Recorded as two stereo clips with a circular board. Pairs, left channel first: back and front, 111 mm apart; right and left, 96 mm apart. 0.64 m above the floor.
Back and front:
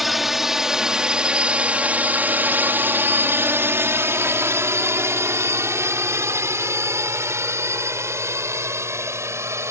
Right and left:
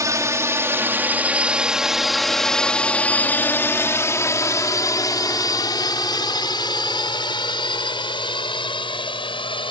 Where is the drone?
90° left; by 9.7 s 65° right.